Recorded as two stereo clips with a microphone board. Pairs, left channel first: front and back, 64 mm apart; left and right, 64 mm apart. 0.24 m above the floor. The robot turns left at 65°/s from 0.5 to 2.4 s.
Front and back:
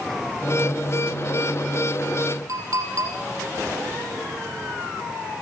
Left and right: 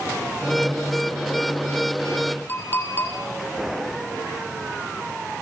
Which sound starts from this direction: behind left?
A clink, at 2.5 s.